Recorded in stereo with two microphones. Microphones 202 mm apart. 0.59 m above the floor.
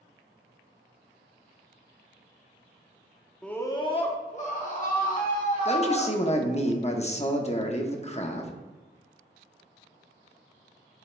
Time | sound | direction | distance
3.4 | a scream | 5° left (ahead or behind) | 0.7 m
5.7 | a man speaking | 35° left (ahead or behind) | 0.7 m